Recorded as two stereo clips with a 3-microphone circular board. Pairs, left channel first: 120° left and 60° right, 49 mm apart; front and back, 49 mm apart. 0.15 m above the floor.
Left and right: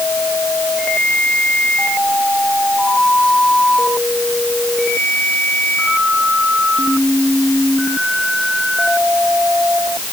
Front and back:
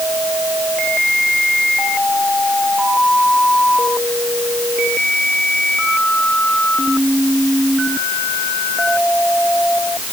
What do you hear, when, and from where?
Only background noise.